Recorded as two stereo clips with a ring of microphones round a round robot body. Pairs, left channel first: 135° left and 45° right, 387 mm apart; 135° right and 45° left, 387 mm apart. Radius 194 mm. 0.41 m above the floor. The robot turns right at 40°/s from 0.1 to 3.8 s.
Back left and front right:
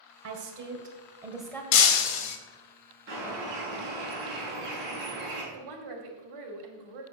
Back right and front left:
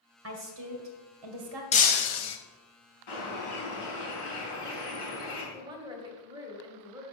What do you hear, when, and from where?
0.2 s a woman speaking: 5° right, 1.9 m; by 1.6 s 50° left, 1.9 m
1.7 s breaking glass: 150° left, 0.9 m; by 2.4 s 175° left, 0.9 m
3.1 s a bird: 110° right, 5 m; by 5.4 s 80° right, 5 m
5.5 s a woman speaking: 35° right, 2.0 m